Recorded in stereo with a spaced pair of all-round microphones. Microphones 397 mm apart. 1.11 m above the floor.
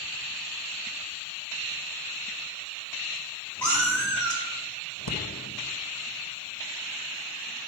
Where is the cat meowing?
40° right (ahead or behind), 2.5 m.